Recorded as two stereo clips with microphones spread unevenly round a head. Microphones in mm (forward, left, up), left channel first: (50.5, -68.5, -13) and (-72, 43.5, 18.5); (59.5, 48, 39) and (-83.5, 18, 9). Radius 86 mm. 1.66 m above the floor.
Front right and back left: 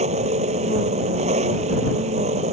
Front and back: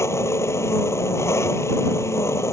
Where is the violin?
I don't hear a violin.